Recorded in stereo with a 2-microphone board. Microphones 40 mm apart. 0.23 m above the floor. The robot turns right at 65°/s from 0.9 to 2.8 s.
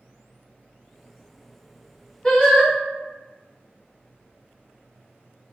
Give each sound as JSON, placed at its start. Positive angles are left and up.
{"t": 2.2, "sound": "singing", "azimuth_deg": 30, "distance_m": 1.5}